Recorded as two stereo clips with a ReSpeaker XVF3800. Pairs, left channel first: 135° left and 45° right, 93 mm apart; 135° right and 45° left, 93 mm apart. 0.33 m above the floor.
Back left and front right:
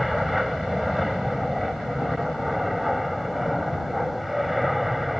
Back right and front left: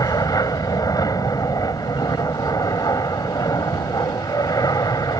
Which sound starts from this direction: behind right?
An aircraft, at 0.0 s.